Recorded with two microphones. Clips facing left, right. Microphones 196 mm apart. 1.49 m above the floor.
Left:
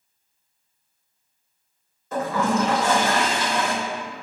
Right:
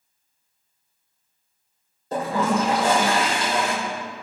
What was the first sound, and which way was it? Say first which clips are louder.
A toilet flushing: even; 35° right (ahead or behind).